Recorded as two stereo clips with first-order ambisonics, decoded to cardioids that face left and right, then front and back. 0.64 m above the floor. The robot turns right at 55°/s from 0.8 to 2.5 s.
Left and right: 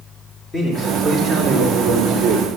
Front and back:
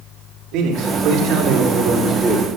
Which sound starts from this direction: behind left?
A man speaking, at 0.5 s.